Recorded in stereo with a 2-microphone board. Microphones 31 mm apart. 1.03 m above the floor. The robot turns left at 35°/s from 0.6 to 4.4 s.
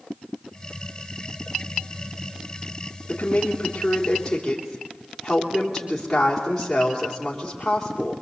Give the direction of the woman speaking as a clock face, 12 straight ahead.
10 o'clock.